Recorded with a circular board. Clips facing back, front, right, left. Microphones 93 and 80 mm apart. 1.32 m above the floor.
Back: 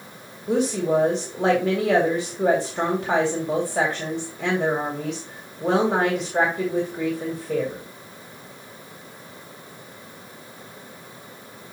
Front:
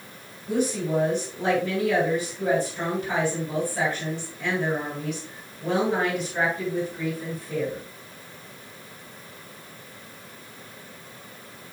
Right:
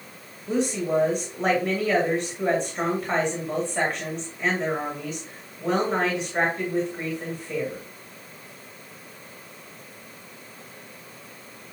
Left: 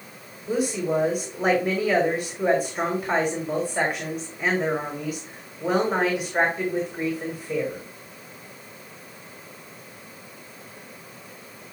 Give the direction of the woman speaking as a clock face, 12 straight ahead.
6 o'clock.